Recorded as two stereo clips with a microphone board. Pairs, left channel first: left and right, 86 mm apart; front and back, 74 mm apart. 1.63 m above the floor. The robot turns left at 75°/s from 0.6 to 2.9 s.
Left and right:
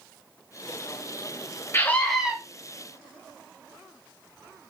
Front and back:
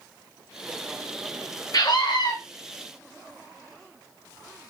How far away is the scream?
About 2 m.